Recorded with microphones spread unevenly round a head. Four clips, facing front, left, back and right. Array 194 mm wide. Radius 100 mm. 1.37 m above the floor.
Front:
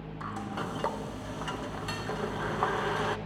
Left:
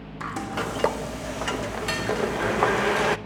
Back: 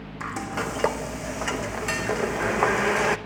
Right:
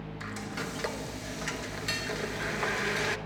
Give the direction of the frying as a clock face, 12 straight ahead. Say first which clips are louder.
Left 10 dB, back 6 dB; 8 o'clock.